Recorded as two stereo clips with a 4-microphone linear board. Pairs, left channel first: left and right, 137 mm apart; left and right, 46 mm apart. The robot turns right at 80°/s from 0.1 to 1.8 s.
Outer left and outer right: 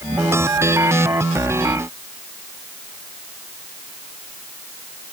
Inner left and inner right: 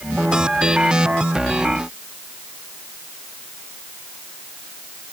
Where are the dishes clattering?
I don't hear dishes clattering.